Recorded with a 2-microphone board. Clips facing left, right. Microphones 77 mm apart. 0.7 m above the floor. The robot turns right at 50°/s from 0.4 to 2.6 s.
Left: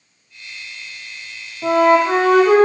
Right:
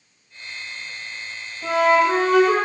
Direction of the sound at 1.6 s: 35° left.